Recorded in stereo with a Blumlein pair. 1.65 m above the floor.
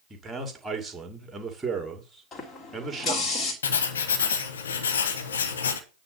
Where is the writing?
65° left, 1.4 m.